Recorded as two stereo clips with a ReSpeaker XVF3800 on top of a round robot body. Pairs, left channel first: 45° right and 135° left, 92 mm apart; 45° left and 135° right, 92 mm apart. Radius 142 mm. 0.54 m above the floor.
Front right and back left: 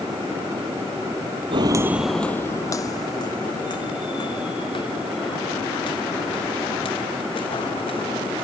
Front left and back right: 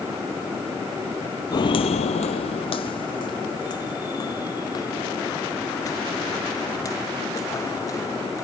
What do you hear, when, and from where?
1.5 s footsteps: 95° left; by 8.4 s 15° right